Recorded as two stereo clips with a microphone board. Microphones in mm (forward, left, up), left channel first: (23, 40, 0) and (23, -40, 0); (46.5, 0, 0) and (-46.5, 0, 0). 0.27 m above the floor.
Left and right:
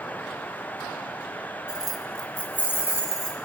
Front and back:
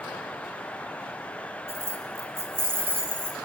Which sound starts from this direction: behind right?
Keys jangling, at 1.7 s.